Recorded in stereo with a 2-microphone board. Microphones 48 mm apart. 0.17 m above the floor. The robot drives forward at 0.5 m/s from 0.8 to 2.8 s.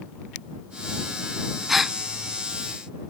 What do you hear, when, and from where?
1.7 s a gasp: 5° right (ahead or behind)